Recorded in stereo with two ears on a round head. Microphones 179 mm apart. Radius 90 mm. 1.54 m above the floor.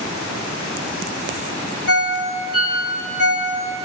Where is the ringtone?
55° left (ahead or behind), 2 m.